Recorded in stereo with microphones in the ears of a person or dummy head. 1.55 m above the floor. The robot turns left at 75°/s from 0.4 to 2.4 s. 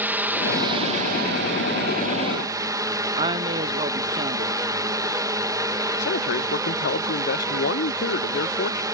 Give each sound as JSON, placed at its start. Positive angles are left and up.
{"t": 0.0, "sound": "a drone", "azimuth_deg": -5}
{"t": 3.2, "sound": "a woman speaking", "side_deg": -40}
{"t": 6.0, "sound": "a man speaking", "side_deg": 55}